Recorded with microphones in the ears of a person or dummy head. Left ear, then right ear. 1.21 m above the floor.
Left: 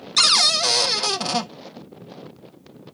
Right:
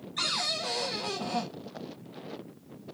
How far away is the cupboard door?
About 0.5 m.